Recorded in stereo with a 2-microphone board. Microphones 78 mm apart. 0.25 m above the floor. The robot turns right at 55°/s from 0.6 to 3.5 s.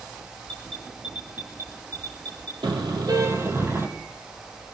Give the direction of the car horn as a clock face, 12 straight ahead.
3 o'clock.